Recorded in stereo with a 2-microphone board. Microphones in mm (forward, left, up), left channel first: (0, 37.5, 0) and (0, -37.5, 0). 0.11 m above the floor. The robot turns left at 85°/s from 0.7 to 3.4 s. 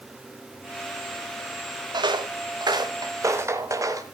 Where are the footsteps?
75° right (ahead or behind), 2 m; by 4.0 s 50° right (ahead or behind), 3.5 m.